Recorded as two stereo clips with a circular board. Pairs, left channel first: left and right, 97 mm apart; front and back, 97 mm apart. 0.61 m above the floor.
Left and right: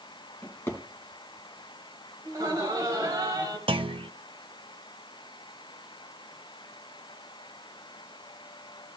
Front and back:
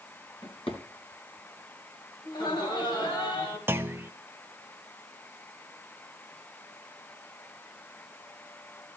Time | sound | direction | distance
0.4 | a drawer | 25° left | 2 m
2.2 | laughter | 35° right | 3 m
3.7 | a clunk | 110° right | 0.7 m